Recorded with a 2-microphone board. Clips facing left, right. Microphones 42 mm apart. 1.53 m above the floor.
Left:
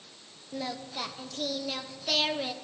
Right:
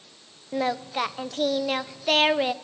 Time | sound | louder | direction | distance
0.5 | singing | right 10 dB | 40° right (ahead or behind) | 0.5 m